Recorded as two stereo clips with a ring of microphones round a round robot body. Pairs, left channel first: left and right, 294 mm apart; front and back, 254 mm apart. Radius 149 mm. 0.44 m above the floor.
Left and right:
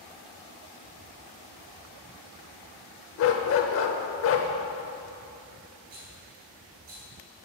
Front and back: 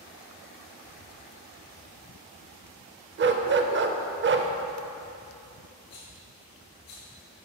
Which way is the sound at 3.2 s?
135° left.